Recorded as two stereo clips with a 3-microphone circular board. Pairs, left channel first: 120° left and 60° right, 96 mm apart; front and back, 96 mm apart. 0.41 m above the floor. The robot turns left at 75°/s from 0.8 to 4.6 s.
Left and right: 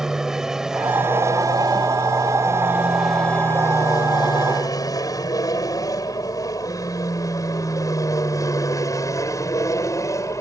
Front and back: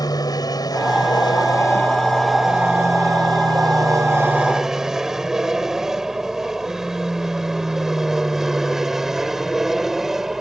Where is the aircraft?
25° left; by 10.4 s 95° left.